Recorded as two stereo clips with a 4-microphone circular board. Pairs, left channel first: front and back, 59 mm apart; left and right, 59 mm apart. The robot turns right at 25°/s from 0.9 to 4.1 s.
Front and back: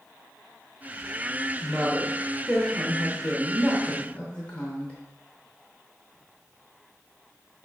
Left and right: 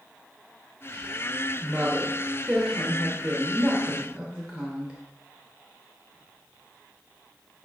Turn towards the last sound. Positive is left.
turn(degrees=-40)